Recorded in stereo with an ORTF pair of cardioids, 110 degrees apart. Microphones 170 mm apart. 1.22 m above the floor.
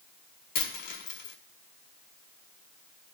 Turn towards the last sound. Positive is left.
turn(degrees=70)